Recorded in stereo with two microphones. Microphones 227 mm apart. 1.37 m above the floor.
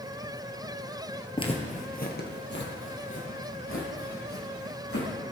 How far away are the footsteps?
About 1.6 m.